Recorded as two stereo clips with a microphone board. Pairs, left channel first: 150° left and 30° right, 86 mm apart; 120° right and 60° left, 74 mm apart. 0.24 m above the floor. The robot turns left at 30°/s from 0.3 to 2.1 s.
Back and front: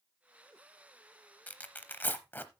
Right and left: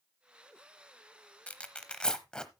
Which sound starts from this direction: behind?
Tearing paper, at 1.5 s.